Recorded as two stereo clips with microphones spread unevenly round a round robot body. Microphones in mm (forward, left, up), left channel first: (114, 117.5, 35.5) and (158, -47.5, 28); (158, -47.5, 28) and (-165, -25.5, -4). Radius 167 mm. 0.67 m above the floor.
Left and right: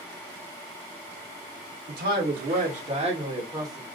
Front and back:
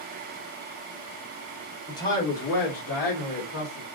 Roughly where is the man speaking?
Right.